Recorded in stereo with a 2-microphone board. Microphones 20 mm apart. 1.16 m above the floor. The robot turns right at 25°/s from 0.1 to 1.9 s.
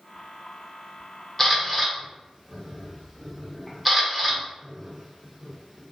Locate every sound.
1.4 s a camera shutter: 10° left (ahead or behind), 0.7 m; by 5.9 s centre (ahead or behind), 0.7 m